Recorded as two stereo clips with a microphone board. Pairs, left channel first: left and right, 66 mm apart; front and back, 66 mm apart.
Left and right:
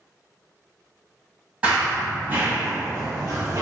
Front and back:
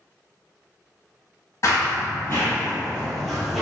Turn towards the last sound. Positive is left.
turn(degrees=-95)